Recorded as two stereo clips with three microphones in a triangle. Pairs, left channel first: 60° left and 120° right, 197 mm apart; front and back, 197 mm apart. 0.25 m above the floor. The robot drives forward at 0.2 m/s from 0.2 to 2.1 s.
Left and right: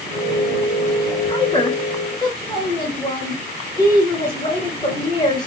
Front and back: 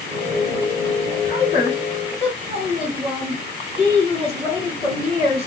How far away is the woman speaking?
About 1.7 m.